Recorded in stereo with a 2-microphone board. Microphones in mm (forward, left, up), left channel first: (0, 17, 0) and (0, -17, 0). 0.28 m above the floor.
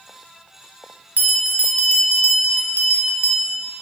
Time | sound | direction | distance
1.2 | a bell | 60° right (ahead or behind) | 0.8 m